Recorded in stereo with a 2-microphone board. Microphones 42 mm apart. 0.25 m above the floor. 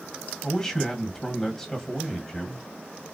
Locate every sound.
0.4 s a man speaking: 15° left (ahead or behind), 1.4 m